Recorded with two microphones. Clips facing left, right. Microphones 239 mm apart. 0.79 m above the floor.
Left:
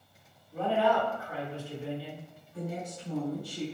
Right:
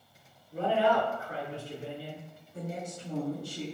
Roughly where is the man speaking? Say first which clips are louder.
Even; right.